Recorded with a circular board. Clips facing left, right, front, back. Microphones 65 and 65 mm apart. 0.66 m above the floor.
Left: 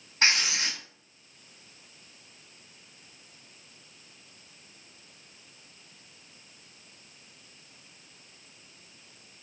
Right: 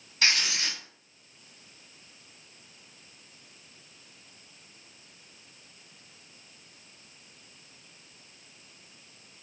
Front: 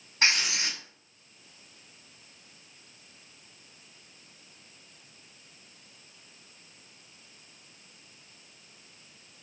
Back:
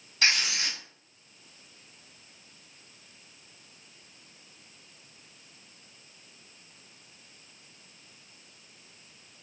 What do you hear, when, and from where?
0.2 s writing: 45° left, 1.8 m